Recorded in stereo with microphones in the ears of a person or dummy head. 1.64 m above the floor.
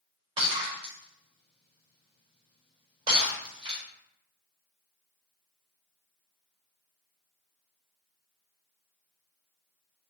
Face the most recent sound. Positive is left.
turn(degrees=-35)  # may be behind; listen again after turning